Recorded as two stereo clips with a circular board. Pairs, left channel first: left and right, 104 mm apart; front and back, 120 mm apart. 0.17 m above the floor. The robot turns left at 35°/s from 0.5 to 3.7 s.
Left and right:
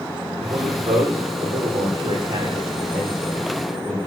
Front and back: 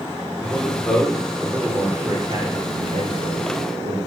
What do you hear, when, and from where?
0.4 s a man speaking: 60° right, 9.5 m; by 4.0 s 170° right, 9.5 m